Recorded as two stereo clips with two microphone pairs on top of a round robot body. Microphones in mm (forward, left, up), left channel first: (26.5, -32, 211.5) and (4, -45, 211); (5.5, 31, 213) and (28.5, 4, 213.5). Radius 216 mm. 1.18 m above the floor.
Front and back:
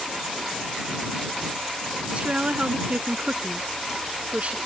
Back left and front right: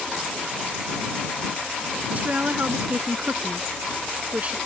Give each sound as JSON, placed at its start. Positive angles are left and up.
{"t": 2.1, "sound": "a woman speaking", "azimuth_deg": -110}